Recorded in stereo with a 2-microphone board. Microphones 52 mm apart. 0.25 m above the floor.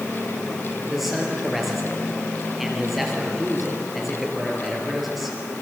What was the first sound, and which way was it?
A man speaking, centre (ahead or behind).